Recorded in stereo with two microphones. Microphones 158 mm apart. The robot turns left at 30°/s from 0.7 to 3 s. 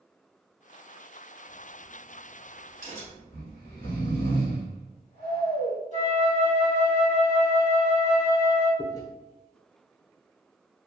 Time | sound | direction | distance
1.5 | a crack | 10° left (ahead or behind) | 1.5 m
3.3 | snoring | 65° left (ahead or behind) | 1.4 m
5.9 | a flute | 50° left (ahead or behind) | 1.6 m
8.8 | chewing | 25° left (ahead or behind) | 0.7 m